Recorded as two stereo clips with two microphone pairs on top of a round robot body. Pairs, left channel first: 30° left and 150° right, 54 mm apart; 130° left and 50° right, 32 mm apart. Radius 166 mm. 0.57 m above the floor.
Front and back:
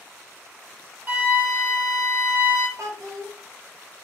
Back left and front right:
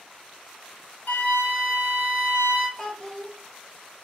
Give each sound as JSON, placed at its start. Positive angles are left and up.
{"t": 1.1, "sound": "a flute", "azimuth_deg": 140, "distance_m": 2.0}
{"t": 2.8, "sound": "a child speaking", "azimuth_deg": -150, "distance_m": 1.5}